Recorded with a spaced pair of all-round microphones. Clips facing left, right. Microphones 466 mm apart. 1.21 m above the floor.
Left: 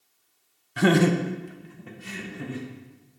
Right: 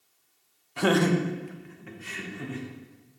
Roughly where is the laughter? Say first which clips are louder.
Left 3 dB; left.